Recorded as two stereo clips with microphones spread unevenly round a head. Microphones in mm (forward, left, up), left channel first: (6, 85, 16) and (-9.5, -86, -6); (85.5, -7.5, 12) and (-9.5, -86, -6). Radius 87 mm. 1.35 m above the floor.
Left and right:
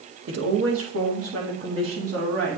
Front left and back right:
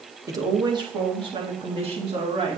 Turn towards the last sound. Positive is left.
turn(degrees=-110)